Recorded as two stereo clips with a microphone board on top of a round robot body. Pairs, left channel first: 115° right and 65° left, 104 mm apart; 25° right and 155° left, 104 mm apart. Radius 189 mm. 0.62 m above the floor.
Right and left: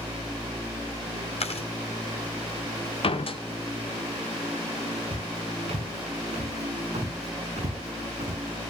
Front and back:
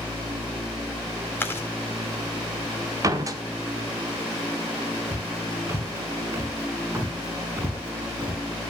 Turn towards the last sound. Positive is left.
turn(degrees=90)